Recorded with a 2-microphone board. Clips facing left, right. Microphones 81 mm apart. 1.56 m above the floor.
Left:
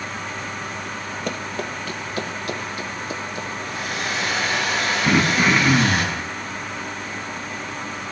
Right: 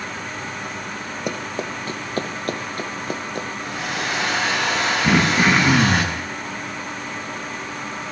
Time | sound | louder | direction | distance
1.3 | running footsteps | right 2 dB | 15° right (ahead or behind) | 2 m
3.6 | a hair dryer | right 1 dB | 80° right | 7.5 m
5.0 | throat clearing | right 1 dB | 25° right (ahead or behind) | 2.5 m